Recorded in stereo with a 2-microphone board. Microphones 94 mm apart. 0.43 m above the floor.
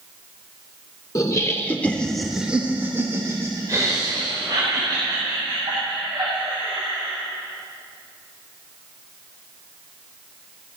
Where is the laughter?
35° left (ahead or behind), 1.1 m; by 7.2 s 55° right (ahead or behind), 3.5 m.